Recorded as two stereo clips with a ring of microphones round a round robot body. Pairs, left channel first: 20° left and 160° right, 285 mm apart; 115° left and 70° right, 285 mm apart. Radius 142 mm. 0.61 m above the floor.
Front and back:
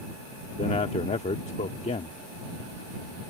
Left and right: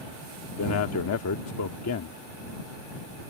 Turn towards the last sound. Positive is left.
turn(degrees=85)